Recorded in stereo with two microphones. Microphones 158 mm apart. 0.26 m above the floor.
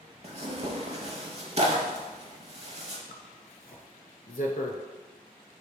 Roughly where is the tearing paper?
Right.